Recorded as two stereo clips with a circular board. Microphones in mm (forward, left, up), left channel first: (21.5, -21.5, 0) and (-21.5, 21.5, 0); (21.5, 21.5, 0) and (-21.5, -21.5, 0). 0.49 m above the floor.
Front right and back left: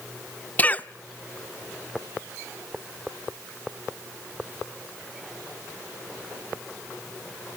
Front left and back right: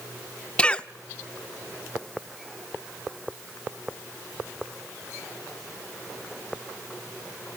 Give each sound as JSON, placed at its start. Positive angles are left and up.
{"t": 0.6, "sound": "a cough", "azimuth_deg": -5, "distance_m": 0.7}